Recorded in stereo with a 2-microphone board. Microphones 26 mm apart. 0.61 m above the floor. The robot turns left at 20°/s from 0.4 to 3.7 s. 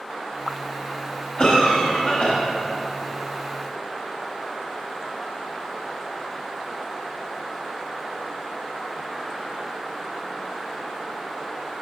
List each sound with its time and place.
1.4 s a cough: 35° left (ahead or behind), 1.4 m; by 2.3 s 45° left (ahead or behind), 1.4 m